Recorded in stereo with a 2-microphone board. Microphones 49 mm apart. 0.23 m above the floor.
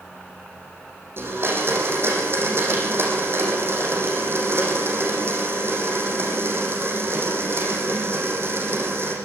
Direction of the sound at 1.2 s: 50° right (ahead or behind).